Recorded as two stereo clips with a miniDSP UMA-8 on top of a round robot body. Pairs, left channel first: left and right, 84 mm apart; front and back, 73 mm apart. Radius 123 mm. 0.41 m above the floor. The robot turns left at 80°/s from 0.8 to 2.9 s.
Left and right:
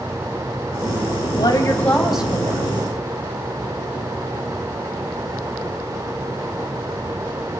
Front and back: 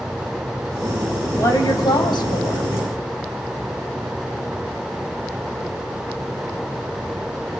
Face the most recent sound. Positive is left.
turn(degrees=-65)